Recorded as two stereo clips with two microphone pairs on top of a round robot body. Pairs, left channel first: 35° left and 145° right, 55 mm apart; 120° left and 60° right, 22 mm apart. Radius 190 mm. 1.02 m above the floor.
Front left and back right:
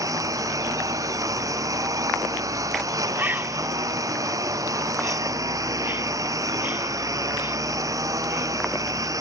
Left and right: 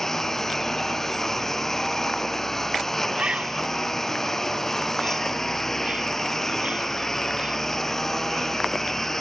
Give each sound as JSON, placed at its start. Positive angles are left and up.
{"t": 0.0, "sound": "a lawn mower", "azimuth_deg": -165}
{"t": 3.1, "sound": "a bird", "azimuth_deg": -90}